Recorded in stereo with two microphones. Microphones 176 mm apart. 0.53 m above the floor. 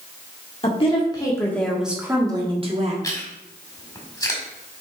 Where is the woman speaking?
35° left (ahead or behind), 1.6 m; by 2.9 s 40° right (ahead or behind), 1.6 m.